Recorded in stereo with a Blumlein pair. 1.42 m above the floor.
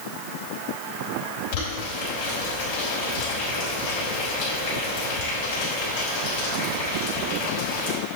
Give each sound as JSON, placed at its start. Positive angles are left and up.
{"t": 1.5, "sound": "boiling", "azimuth_deg": 55, "distance_m": 4.0}